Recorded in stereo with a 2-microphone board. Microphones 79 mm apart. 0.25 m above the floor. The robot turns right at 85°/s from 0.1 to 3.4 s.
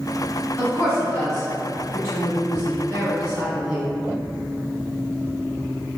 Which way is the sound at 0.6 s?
35° left (ahead or behind).